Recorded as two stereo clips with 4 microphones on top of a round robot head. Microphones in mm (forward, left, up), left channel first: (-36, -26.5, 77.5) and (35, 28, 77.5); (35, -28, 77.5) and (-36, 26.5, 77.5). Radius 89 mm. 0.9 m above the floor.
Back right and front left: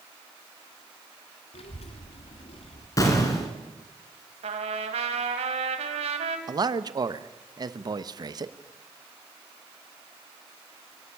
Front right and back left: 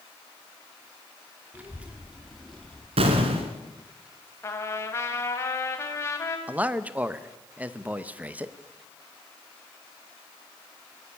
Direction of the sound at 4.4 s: 25° left.